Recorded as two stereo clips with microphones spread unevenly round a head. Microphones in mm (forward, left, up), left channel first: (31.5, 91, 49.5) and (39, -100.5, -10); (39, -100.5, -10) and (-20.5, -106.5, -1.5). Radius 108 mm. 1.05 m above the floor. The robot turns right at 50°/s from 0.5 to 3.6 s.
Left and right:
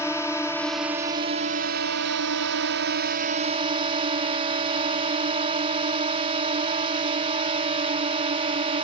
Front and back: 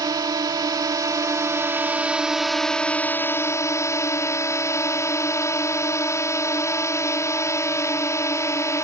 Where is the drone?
175° left; by 8.8 s 30° right.